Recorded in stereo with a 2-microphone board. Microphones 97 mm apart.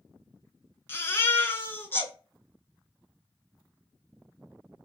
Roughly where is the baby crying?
Left.